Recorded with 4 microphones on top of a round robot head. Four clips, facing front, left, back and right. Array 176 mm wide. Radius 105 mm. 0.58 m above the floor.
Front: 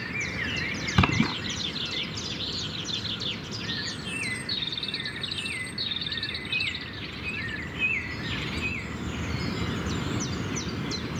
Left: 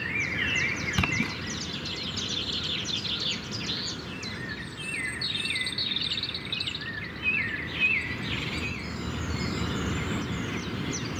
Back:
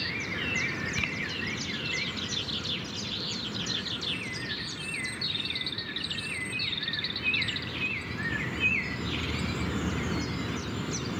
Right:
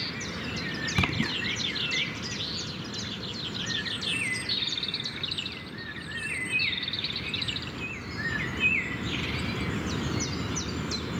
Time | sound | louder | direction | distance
0.9 | a splash | right 1 dB, front 11 dB | 5° right | ?